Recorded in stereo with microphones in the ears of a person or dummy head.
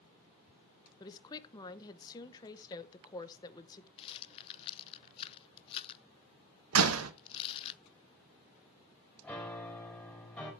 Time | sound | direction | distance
1.0 | a woman speaking | 20° left (ahead or behind) | 1.0 m
4.0 | a rattle | 30° left (ahead or behind) | 0.7 m
6.7 | a door slam | 85° right | 1.1 m
9.2 | a piano | 5° left (ahead or behind) | 3 m